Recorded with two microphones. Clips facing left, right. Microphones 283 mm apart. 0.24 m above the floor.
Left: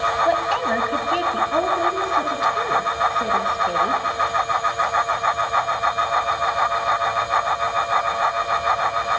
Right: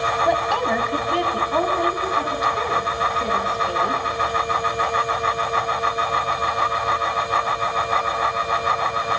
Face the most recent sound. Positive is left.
turn(degrees=15)  # may be behind; listen again after turning